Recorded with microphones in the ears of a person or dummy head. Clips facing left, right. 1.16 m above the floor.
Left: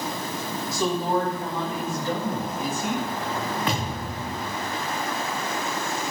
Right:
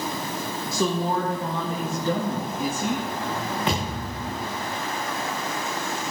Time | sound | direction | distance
0.7 | a woman speaking | 70° right (ahead or behind) | 1.6 m
3.7 | a thud | 20° right (ahead or behind) | 5.5 m